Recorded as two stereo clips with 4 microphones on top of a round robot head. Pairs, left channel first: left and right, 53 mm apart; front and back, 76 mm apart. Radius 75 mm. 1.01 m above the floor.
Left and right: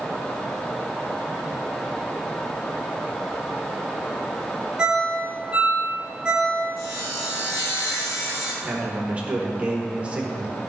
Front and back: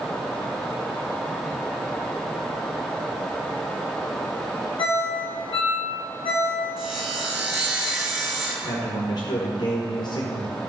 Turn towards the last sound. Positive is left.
turn(degrees=-20)